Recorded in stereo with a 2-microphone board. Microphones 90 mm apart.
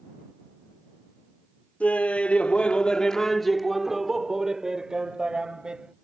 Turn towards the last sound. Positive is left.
turn(degrees=-10)  # may be behind; listen again after turning